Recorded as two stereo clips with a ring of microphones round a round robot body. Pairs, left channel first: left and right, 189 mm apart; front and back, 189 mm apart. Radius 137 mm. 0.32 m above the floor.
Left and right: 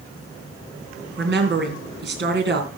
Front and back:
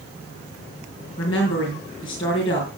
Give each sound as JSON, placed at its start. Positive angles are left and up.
{"t": 1.2, "sound": "a woman speaking", "azimuth_deg": -70, "distance_m": 3.5}